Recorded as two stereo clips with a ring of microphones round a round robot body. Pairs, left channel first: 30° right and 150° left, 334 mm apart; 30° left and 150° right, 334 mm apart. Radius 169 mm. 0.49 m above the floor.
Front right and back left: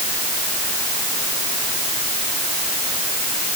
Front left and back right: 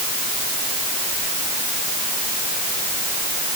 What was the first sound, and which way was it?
Only background noise.